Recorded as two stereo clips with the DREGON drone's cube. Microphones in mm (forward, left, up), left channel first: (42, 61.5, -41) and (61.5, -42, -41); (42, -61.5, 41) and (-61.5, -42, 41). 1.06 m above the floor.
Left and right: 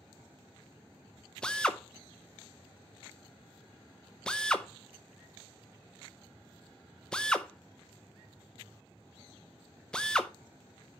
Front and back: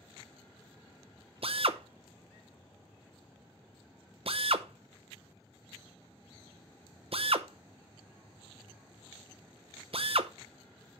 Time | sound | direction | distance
1.4 | a drill | straight behind | 0.6 m